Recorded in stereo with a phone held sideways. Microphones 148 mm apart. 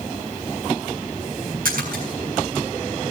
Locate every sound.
1.6 s a splash: 75° right (ahead or behind), 6 m